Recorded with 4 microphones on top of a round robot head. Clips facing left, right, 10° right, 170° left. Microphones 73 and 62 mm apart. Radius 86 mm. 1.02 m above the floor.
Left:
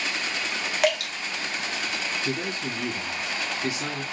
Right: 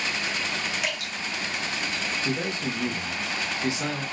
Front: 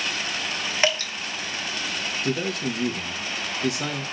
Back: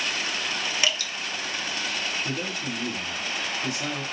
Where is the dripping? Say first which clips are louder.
Left 8 dB, front 6 dB; 45° left, 0.8 m.